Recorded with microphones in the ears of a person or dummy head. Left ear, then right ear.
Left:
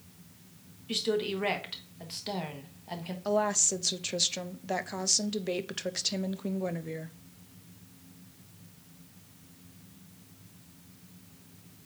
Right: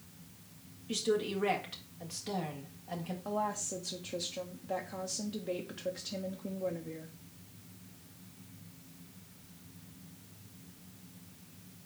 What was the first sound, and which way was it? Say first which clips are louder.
A woman speaking: left 2 dB; 20° left (ahead or behind).